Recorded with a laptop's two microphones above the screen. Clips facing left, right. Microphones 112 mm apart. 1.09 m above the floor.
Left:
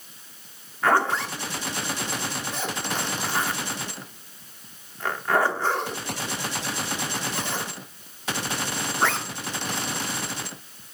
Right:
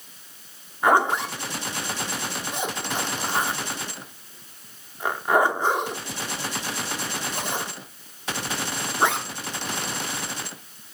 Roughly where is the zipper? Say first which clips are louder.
Right 2 dB; centre.